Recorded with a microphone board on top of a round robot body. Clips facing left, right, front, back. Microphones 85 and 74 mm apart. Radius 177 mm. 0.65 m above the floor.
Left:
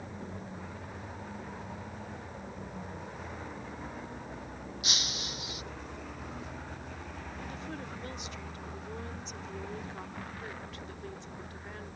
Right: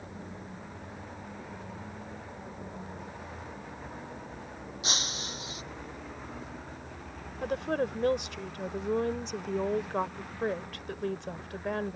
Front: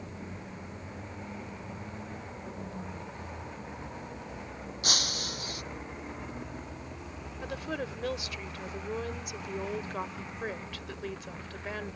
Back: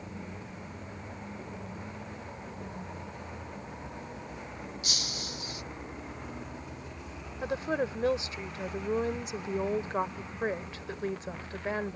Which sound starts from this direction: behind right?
A woman speaking, at 7.4 s.